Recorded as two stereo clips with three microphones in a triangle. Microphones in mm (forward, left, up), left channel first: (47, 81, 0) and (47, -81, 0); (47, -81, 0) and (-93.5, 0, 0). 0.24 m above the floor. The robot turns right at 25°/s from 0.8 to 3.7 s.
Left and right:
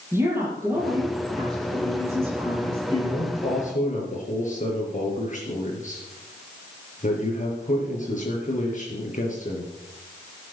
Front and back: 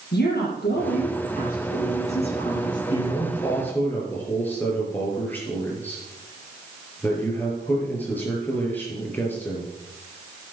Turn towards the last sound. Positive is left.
turn(degrees=50)